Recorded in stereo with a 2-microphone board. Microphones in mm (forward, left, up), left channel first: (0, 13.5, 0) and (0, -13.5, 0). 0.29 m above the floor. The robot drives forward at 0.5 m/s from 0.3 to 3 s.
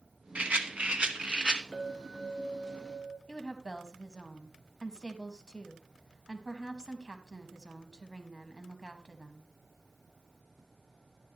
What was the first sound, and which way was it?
A rattle, 60° right (ahead or behind).